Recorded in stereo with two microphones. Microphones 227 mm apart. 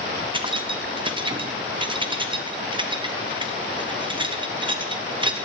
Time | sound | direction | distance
0.3 | keys jangling | 20° right (ahead or behind) | 0.5 m